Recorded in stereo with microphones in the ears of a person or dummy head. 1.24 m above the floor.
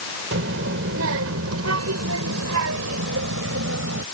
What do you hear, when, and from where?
0.3 s a child speaking: 60° right (ahead or behind); by 4.0 s 70° right (ahead or behind)